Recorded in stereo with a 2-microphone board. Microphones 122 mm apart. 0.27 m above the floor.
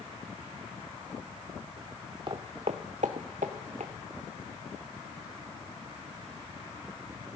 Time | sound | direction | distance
2.3 | footsteps | 40° right (ahead or behind) | 0.7 m